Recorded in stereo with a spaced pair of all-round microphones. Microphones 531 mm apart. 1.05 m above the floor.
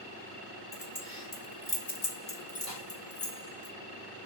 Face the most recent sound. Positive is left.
turn(degrees=85)